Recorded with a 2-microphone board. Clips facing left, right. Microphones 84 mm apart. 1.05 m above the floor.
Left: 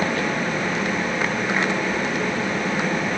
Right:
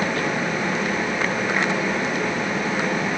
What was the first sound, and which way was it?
Only background noise.